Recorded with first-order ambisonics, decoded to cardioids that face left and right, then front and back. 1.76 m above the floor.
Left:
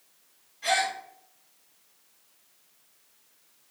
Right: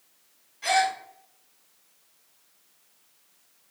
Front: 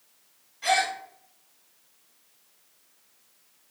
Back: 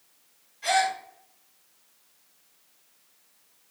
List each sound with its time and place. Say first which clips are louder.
0.6 s a gasp: right 3 dB, even; 35° right, 1.4 m